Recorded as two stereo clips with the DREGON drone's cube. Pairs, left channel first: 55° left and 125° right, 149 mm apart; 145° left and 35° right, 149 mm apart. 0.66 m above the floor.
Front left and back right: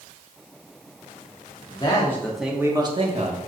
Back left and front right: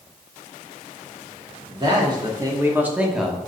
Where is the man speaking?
10° left, 1.3 m; by 3.5 s 130° right, 1.4 m.